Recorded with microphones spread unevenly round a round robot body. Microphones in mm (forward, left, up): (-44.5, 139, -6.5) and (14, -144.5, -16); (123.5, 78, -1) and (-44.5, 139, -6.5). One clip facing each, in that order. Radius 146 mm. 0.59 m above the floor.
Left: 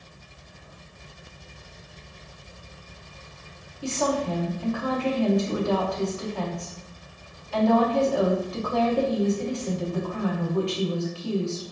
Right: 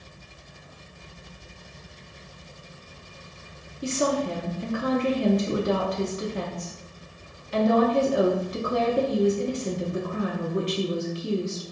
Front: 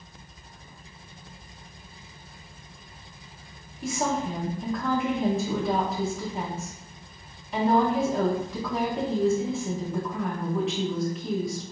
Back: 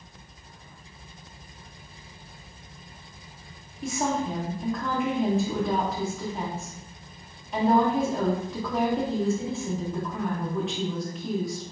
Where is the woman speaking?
110° right, 0.7 m.